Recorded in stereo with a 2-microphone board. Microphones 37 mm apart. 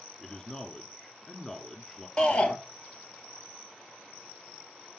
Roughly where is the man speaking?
Centre.